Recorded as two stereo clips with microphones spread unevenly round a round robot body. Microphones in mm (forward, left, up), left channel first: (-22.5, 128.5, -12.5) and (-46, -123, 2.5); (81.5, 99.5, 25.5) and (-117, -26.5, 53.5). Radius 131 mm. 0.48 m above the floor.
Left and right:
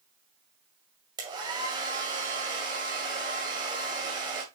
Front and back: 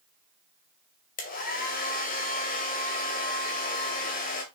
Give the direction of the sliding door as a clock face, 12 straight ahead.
No sliding door in this recording.